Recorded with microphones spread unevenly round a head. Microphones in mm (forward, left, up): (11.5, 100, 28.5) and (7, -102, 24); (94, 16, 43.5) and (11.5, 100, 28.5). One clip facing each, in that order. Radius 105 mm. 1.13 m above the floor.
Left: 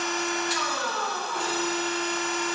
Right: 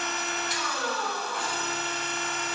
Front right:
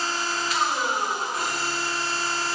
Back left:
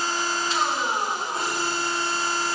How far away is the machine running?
About 1.7 m.